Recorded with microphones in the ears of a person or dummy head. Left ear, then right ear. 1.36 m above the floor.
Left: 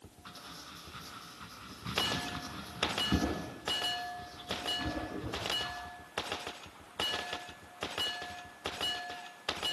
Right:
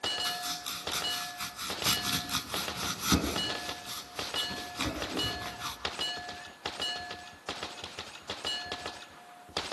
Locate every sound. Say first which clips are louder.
0.2 s chopping: right 13 dB; 80° right, 9.5 m